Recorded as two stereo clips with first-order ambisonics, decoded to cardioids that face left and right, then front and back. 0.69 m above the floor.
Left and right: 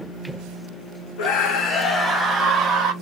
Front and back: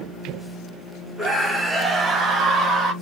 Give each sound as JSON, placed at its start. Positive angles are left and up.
{"t": 1.2, "sound": "a scream", "azimuth_deg": 90, "distance_m": 1.2}